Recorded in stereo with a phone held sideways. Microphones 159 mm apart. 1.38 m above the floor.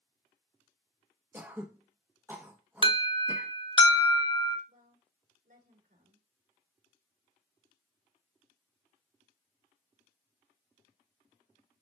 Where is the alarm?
30° left (ahead or behind), 0.9 m.